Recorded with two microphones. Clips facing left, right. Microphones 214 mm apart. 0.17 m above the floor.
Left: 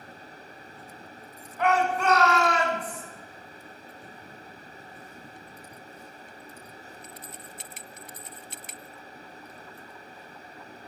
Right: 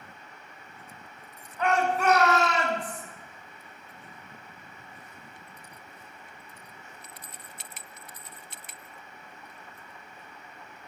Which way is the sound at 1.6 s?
10° left (ahead or behind).